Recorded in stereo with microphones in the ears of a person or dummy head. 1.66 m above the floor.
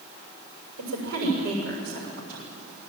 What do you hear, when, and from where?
0.8 s a woman speaking: 85° right, 6.5 m